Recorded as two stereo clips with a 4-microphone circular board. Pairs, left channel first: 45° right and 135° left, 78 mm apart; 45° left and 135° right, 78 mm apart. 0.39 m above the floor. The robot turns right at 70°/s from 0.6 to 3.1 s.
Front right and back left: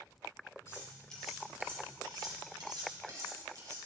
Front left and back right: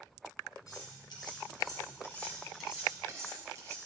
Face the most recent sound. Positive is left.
turn(degrees=175)